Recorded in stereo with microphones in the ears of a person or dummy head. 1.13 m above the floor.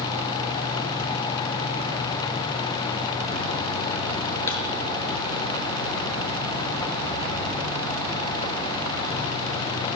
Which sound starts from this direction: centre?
A thud, at 4.5 s.